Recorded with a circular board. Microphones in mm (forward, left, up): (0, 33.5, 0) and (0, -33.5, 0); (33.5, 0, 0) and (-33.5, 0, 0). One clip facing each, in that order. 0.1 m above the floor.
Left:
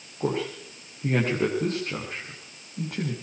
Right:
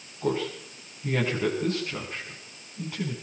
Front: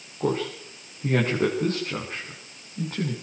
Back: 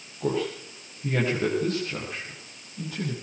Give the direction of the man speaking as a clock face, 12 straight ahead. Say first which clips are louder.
Even, front 1 dB; 10 o'clock.